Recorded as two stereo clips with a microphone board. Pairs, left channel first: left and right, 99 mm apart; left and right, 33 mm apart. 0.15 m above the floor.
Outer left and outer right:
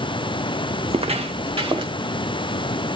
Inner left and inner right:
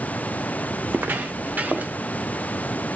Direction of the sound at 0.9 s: 80° right.